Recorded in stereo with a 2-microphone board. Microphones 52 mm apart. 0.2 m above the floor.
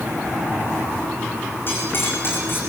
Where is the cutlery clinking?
45° left (ahead or behind), 8.5 m.